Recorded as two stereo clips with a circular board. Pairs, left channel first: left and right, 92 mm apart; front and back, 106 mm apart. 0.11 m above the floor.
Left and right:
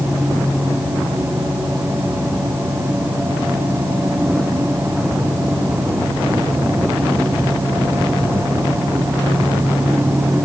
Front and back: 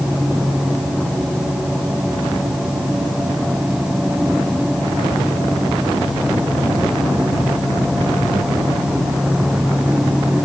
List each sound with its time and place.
Only background noise.